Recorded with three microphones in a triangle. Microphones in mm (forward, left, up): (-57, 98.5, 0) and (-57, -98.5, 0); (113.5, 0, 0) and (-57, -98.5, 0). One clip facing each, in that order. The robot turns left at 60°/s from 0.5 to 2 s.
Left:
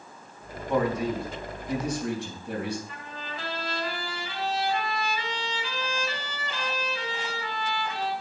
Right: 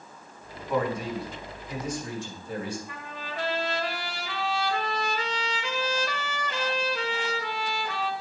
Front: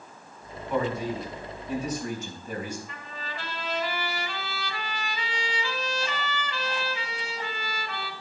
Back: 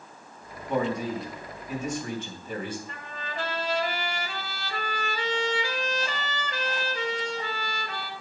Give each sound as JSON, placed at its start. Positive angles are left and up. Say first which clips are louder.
{"t": 0.7, "sound": "a man speaking", "louder": "left 2 dB, back 1 dB", "azimuth_deg": 150, "distance_m": 3.5}
{"t": 2.9, "sound": "a trumpet", "louder": "right 1 dB, back 1 dB", "azimuth_deg": -105, "distance_m": 1.9}